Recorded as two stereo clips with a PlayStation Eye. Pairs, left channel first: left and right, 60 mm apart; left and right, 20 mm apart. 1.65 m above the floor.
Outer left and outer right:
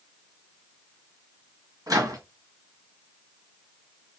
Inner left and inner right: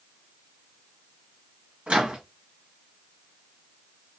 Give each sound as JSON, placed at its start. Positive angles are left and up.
{"t": 1.9, "sound": "a microwave", "side_deg": -65, "distance_m": 1.8}